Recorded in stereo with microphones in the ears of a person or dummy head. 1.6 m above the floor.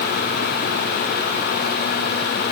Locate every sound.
Only background noise.